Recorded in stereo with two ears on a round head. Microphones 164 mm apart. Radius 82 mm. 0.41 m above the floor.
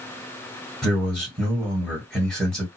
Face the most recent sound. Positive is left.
turn(degrees=5)  # may be behind; listen again after turning